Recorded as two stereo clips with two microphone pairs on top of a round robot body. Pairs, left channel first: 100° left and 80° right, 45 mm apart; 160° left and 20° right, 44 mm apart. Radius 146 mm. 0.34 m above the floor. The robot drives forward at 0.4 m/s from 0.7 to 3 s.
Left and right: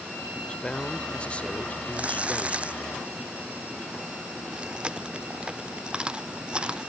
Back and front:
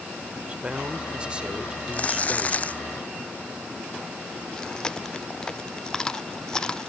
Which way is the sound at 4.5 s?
140° right.